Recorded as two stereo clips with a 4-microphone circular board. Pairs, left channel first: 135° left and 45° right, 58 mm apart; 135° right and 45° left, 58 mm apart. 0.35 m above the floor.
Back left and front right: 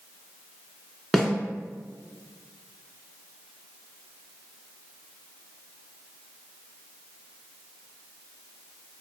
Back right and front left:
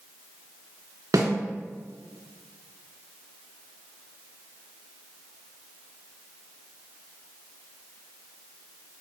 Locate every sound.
1.1 s a snare drum: 45° left, 1.2 m